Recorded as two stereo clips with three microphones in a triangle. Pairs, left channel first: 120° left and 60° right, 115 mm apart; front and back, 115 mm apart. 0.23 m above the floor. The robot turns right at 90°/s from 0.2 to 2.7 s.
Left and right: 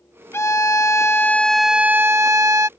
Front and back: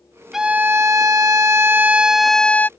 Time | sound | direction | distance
0.3 | a violin | 95° left | ?